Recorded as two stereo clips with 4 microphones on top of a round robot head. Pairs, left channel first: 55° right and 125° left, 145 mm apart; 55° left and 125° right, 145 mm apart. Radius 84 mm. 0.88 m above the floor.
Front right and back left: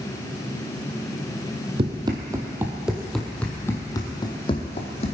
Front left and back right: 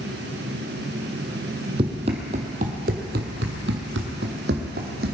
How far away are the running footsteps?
About 1.6 m.